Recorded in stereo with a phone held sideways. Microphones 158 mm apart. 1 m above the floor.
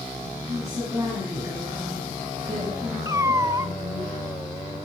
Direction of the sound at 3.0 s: 20° right (ahead or behind).